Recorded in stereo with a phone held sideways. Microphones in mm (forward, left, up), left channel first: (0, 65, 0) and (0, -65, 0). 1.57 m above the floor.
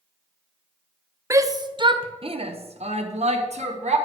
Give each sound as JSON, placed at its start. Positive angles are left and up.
{"t": 1.3, "sound": "a shout", "side_deg": -20, "distance_m": 0.8}